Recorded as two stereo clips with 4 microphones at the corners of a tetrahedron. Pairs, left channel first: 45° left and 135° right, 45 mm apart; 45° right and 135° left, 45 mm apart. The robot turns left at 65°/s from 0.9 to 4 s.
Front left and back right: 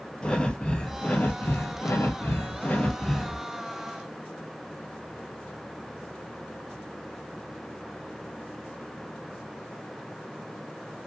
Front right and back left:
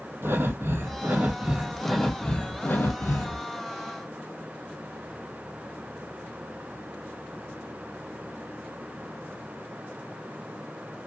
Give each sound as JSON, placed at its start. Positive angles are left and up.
{"t": 0.2, "sound": "breathing", "azimuth_deg": 115, "distance_m": 0.5}